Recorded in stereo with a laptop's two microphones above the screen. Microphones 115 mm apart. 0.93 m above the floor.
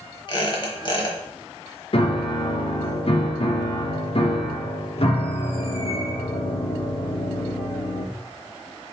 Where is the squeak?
45° left (ahead or behind), 0.9 m.